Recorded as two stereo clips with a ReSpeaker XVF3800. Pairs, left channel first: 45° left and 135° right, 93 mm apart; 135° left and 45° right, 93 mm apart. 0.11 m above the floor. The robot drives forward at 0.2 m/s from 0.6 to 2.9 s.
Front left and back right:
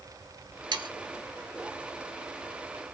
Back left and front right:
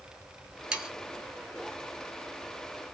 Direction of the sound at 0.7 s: 125° right.